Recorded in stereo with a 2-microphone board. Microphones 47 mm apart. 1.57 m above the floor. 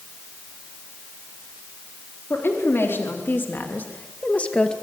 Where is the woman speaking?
60° left (ahead or behind), 4 m; by 4.7 s 20° left (ahead or behind), 2 m.